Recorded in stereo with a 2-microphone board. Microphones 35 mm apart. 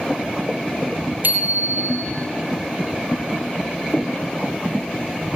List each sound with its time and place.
1.2 s a bicycle bell: 60° right (ahead or behind), 4 m